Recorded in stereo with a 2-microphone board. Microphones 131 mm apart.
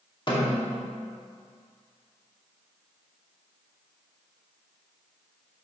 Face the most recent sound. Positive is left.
turn(degrees=40)  # may be behind; listen again after turning